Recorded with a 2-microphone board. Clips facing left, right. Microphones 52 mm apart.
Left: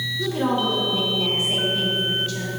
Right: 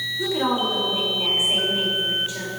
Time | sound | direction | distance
0.2 | a woman speaking | 20° right (ahead or behind) | 3.5 m